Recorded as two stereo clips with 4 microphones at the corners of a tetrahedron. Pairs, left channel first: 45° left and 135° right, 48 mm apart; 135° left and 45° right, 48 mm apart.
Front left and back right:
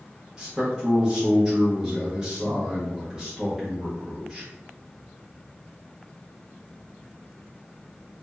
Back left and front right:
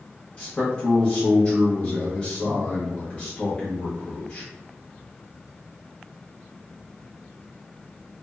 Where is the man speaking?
175° left, 0.7 m.